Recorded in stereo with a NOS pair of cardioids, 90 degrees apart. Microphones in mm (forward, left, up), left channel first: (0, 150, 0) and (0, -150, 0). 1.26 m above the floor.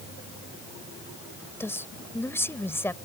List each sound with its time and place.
1.6 s a woman speaking: 10° left